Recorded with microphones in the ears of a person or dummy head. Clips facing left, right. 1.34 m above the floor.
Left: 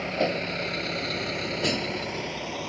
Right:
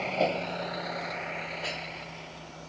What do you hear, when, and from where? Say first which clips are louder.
0.0 s a vehicle: left 1 dB; 20° left (ahead or behind); by 2.7 s 85° left